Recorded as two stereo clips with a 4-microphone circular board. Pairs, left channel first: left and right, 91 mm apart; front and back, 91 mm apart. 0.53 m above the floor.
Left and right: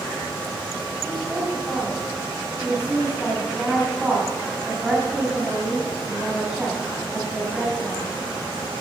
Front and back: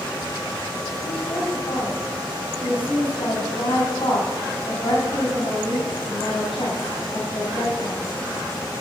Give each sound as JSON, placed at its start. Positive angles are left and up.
{"t": 1.0, "sound": "a woman speaking", "azimuth_deg": -10, "distance_m": 4.0}